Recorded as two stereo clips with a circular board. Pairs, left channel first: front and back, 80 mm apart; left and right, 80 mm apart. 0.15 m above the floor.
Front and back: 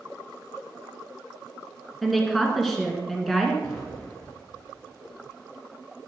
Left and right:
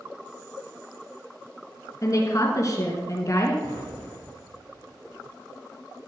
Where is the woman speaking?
85° left, 1.8 m.